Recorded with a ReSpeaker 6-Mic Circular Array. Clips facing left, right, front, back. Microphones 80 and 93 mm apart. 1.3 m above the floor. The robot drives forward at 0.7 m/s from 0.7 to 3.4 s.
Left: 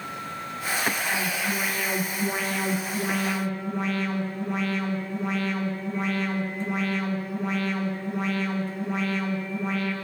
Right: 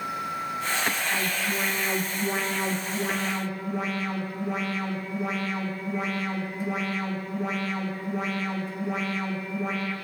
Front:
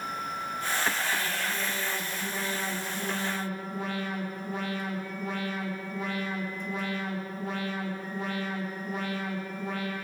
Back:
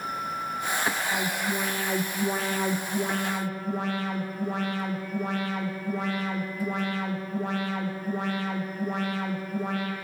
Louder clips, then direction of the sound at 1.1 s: Left 1 dB, back 3 dB; 175° right.